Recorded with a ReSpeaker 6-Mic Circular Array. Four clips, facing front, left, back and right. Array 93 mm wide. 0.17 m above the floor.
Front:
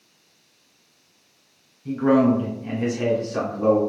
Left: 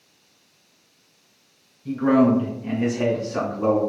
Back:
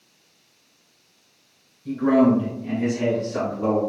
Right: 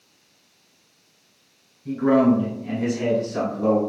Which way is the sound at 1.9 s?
10° left.